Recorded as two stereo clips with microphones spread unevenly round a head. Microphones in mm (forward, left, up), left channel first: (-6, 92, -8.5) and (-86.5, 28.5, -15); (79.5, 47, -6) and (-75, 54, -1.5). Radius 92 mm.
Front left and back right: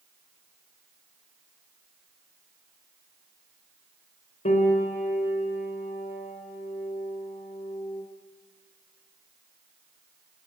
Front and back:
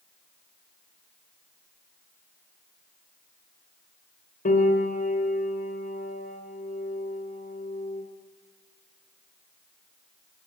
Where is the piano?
30° left, 4.5 m.